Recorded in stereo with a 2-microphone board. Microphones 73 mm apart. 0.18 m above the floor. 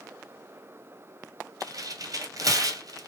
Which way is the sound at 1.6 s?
55° right (ahead or behind).